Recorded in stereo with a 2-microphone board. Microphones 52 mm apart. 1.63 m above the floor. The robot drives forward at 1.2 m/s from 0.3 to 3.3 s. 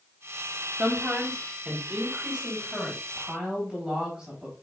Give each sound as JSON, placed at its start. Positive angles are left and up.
{"t": 0.8, "sound": "a woman speaking", "side_deg": -15, "distance_m": 1.1}